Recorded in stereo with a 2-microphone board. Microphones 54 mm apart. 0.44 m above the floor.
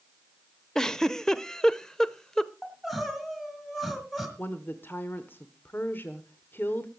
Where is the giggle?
10° left (ahead or behind), 0.6 m.